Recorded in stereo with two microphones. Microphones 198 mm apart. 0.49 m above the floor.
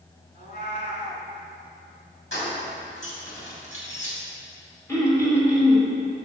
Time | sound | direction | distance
0.3 | a cat meowing | 55° left (ahead or behind) | 1.2 m
2.3 | keys jangling | 75° left (ahead or behind) | 2.5 m
4.9 | throat clearing | 15° left (ahead or behind) | 1.9 m